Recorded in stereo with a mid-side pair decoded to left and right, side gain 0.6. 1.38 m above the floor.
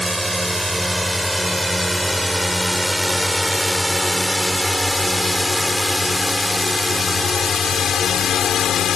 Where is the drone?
5° right; by 9.0 s 50° left.